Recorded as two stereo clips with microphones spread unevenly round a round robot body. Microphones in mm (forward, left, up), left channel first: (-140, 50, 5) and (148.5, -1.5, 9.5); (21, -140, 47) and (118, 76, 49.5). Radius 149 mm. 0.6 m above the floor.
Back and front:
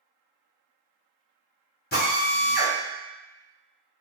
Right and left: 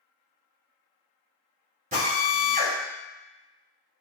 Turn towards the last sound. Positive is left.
turn(degrees=120)